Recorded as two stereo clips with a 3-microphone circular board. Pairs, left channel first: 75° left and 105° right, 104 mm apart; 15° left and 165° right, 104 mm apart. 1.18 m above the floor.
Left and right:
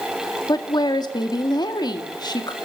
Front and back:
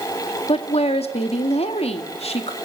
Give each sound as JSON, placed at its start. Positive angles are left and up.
{"t": 0.5, "sound": "a woman speaking", "azimuth_deg": 30, "distance_m": 1.9}